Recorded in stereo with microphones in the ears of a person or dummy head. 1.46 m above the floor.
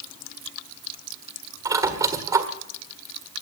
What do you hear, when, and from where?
1.6 s a squeak: 20° right (ahead or behind), 1.6 m